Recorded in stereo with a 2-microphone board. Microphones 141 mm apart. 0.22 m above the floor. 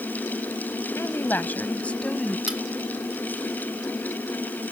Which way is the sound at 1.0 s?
20° left (ahead or behind).